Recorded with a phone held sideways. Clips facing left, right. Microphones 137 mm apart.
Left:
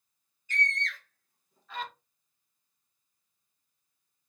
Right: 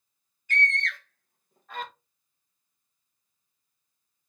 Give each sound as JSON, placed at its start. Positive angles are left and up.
{"t": 0.5, "sound": "a scream", "side_deg": -60, "distance_m": 0.9}